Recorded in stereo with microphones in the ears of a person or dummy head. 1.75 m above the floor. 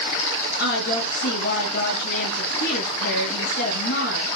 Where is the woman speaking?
65° left (ahead or behind), 2.5 m.